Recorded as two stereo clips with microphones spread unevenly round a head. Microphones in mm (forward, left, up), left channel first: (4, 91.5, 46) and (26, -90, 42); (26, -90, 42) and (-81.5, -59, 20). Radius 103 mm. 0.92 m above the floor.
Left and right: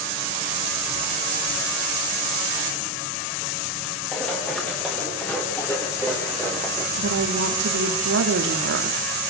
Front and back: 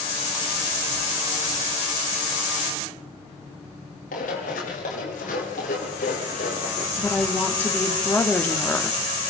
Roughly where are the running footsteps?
Ahead.